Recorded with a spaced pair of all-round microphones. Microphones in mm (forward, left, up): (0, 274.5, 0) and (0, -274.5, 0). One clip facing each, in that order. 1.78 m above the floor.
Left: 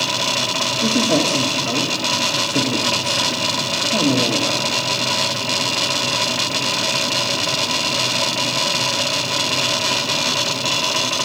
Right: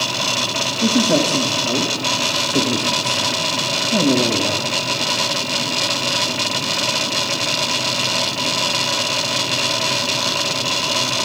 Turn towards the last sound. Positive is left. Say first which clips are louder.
# right 2 dB
turn(degrees=-50)  # may be behind; listen again after turning